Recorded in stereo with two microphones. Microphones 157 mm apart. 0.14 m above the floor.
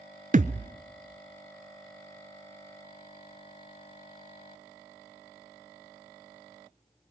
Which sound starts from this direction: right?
A thud, at 0.3 s.